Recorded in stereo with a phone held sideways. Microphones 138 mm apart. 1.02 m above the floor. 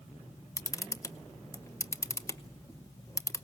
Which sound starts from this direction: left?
A camera shutter, at 0.6 s.